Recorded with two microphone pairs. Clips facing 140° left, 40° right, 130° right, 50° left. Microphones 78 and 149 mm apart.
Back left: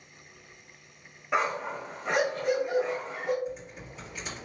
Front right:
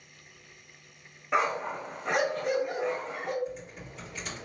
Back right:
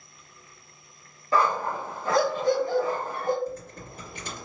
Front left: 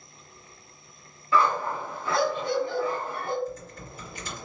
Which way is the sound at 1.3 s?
135° right.